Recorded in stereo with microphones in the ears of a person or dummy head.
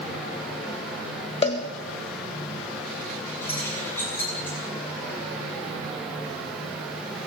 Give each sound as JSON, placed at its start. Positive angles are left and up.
{"t": 1.4, "sound": "a cowbell", "side_deg": 35, "distance_m": 1.5}
{"t": 3.4, "sound": "keys jangling", "side_deg": 10, "distance_m": 9.0}